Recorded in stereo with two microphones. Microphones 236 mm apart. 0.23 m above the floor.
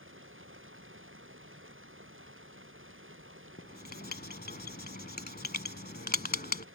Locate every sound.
0.0 s running water: 60° right (ahead or behind)
3.6 s writing: 40° left (ahead or behind)